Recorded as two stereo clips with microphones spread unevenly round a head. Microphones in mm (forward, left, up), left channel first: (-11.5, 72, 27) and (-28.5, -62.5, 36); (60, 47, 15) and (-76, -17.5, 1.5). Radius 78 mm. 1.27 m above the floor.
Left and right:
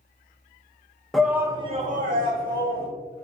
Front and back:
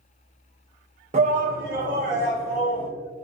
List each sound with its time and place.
1.1 s a shout: 170° left, 0.9 m; by 2.9 s 95° right, 1.7 m